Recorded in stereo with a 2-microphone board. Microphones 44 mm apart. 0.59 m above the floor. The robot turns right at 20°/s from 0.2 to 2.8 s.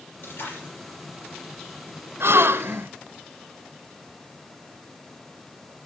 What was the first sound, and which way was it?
A splash, 70° left (ahead or behind).